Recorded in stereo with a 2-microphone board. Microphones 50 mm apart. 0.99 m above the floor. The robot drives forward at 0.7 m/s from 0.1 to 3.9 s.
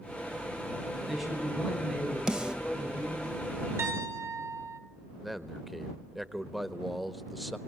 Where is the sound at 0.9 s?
Centre (ahead or behind), 9.5 m.